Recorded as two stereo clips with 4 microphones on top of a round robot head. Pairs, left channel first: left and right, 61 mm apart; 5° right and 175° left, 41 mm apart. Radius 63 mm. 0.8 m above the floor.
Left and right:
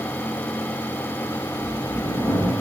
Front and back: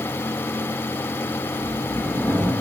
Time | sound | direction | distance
1.6 | a sliding door | 80° left | 1.6 m